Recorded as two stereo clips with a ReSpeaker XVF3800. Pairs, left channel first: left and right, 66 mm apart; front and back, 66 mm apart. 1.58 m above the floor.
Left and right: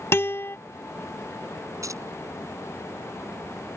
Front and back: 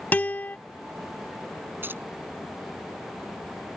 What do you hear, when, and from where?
0.1 s a guitar: 55° left
1.8 s keys jangling: 125° right